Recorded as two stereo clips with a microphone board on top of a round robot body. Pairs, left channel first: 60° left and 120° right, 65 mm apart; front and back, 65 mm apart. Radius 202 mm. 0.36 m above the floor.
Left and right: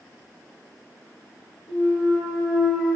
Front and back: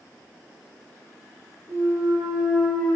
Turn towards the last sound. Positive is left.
turn(degrees=5)